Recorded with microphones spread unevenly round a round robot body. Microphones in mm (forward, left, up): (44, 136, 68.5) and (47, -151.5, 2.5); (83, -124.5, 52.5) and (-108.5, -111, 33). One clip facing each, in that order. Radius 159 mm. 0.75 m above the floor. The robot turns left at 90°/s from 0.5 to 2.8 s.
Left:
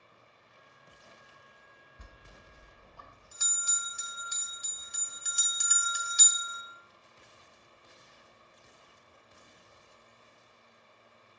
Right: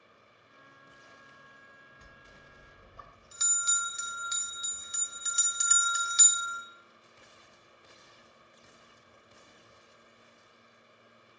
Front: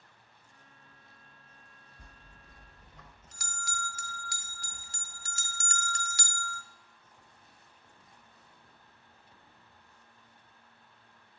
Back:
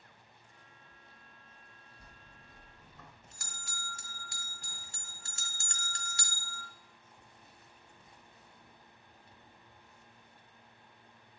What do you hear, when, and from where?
2.0 s a bell: 50° left, 1.0 m; by 6.6 s 20° right, 1.0 m